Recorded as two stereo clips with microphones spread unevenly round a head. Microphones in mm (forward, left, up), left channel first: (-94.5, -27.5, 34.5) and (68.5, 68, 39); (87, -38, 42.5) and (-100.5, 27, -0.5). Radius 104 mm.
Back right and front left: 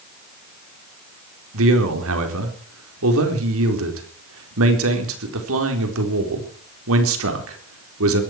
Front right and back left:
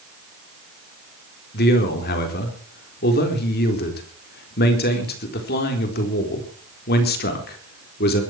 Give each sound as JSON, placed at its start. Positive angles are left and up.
{"t": 1.5, "sound": "a man speaking", "azimuth_deg": 25, "distance_m": 4.0}